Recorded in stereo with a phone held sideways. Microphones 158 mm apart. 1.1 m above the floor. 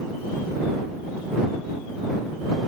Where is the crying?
No crying in this recording.